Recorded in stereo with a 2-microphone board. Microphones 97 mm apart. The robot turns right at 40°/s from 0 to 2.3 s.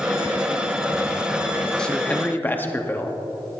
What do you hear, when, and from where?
1.8 s a man speaking: 10° left (ahead or behind), 0.9 m; by 3.2 s 20° left (ahead or behind), 0.9 m